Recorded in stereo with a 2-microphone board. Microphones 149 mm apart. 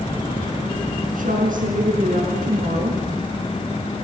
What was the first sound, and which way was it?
A woman speaking, 70° right (ahead or behind).